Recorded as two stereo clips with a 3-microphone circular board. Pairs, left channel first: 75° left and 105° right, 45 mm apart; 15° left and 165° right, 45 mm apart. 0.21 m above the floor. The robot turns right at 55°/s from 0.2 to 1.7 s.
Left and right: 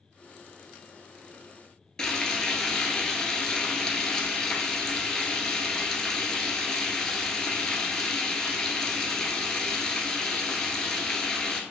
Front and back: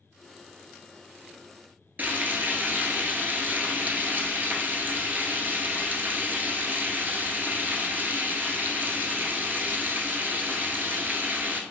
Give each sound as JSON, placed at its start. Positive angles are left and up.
{"t": 2.0, "sound": "frying", "azimuth_deg": 150, "distance_m": 0.5}